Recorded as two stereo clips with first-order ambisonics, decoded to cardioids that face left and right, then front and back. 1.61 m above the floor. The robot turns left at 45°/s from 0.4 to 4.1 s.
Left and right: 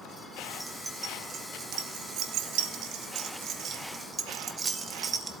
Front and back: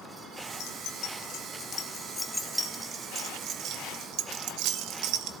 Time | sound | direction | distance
0.6 | keys jangling | 5° right | 1.0 m